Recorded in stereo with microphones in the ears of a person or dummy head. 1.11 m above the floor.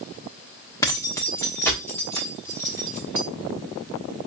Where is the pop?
No pop in this recording.